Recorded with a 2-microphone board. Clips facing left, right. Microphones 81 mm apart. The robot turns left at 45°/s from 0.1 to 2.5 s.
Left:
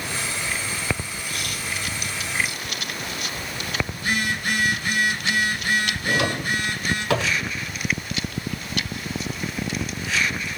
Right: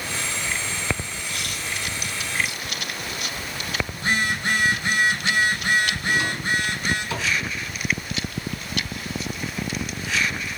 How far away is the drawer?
About 1.5 m.